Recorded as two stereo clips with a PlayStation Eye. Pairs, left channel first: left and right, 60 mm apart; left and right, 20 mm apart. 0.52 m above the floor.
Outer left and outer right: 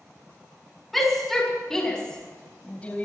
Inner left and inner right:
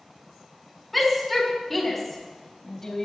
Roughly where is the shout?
Centre.